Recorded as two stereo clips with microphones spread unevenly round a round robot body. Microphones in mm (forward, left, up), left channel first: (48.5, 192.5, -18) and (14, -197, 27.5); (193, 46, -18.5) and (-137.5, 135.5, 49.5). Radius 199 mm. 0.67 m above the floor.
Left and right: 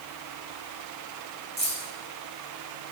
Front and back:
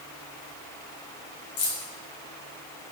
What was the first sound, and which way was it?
Keys jangling, 20° right.